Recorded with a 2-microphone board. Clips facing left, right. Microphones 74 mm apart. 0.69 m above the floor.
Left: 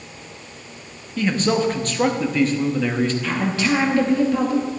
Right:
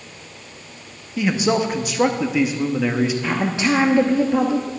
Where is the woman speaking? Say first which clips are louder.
Right 1 dB; 20° right (ahead or behind), 1.0 m.